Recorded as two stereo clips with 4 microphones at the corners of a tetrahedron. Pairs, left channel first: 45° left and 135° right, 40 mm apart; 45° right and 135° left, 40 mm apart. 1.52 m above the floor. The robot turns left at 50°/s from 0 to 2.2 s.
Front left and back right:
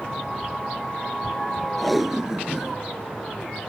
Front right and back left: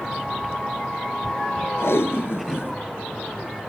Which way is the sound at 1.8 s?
40° right.